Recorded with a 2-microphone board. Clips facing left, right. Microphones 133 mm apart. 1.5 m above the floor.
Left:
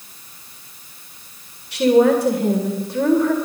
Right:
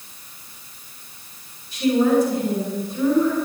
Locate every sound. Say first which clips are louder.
1.7 s a woman speaking: left 4 dB; 70° left (ahead or behind), 2.0 m